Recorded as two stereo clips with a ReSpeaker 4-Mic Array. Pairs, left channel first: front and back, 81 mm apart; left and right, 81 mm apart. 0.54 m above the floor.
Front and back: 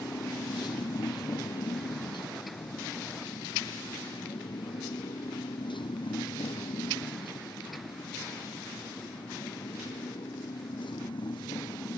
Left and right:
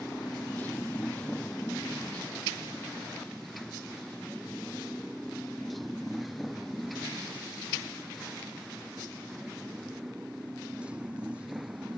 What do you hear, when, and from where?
0.0 s a motorcycle: 25° left; by 12.0 s 15° right